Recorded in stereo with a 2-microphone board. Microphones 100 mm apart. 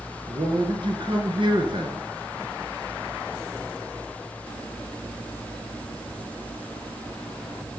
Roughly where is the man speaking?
Right.